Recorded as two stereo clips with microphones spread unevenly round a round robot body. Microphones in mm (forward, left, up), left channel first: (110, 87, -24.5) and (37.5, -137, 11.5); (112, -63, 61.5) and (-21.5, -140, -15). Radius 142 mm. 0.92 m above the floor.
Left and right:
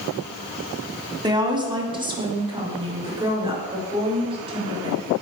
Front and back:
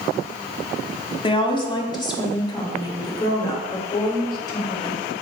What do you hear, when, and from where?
1.2 s a woman speaking: 35° right, 1.7 m; by 5.1 s 40° right, 4 m